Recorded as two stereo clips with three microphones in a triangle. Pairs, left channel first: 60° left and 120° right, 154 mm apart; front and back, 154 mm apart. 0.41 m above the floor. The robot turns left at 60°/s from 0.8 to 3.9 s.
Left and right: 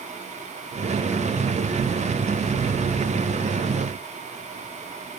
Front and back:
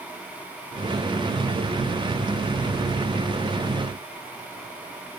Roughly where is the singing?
I don't hear singing.